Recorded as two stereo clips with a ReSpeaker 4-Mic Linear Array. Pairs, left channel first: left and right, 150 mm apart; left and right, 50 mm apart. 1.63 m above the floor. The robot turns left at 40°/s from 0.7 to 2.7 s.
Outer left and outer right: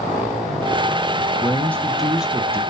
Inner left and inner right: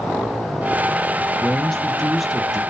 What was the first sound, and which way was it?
A man speaking, 35° left.